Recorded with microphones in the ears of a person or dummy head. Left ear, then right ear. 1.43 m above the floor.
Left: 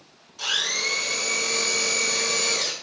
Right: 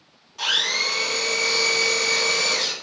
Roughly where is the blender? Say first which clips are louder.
Right 3 dB; right.